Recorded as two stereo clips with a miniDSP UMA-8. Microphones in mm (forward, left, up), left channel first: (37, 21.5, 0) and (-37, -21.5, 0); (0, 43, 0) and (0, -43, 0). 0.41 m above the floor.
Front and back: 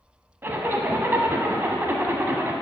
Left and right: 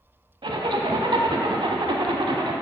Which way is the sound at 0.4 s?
85° right.